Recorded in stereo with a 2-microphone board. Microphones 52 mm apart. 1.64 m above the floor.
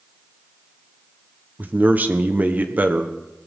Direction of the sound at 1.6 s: 35° right (ahead or behind).